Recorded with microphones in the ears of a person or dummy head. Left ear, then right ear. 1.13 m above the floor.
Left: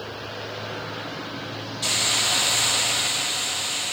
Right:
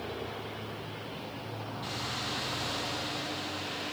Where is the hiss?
35° left (ahead or behind), 0.5 m.